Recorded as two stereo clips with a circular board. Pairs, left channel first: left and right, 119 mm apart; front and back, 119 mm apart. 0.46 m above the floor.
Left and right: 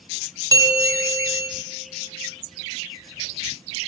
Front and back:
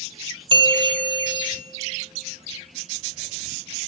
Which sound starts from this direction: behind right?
A bell, at 0.5 s.